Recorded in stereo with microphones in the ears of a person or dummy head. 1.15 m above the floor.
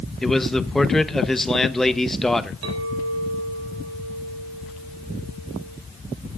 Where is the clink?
80° right, 3.5 m.